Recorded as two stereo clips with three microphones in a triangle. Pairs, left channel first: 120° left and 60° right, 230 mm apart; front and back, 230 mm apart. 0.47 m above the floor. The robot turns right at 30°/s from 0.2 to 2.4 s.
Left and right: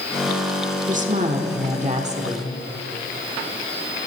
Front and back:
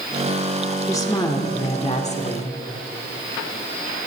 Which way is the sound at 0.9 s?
65° right.